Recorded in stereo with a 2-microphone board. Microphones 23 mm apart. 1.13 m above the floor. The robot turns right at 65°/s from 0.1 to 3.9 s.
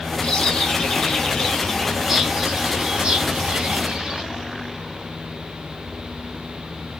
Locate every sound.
0.2 s a bird: 70° left, 0.9 m; by 4.2 s 50° right, 0.9 m